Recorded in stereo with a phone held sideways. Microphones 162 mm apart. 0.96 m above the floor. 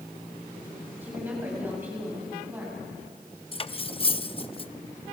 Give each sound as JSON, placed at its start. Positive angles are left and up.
{"t": 1.0, "sound": "a woman speaking", "side_deg": -10, "distance_m": 6.5}
{"t": 3.5, "sound": "cutlery clinking", "side_deg": 35, "distance_m": 0.6}